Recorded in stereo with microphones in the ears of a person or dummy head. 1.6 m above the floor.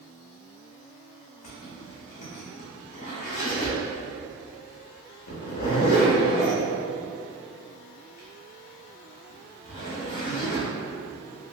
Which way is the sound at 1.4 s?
45° left (ahead or behind).